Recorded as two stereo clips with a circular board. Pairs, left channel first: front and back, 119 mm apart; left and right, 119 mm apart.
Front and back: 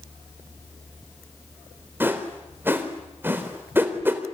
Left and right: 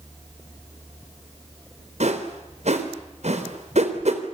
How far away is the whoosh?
About 3 m.